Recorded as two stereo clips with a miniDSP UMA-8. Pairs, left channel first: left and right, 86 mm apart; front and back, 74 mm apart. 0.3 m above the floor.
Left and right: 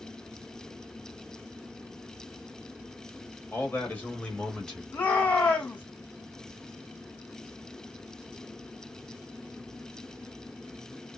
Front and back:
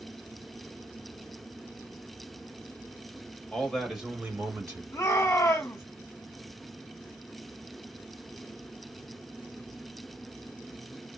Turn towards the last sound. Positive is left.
turn(degrees=25)